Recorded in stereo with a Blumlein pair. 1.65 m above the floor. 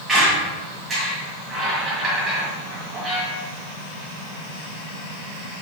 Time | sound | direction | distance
0.1 | a squeak | 15° right | 1.7 m